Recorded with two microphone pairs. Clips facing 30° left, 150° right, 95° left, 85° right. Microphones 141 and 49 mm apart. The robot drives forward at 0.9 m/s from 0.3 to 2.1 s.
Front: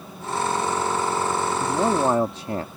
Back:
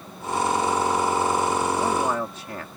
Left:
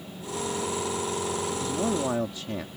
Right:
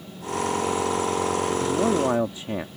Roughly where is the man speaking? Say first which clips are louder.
Front 2 dB, right 5 dB; ahead.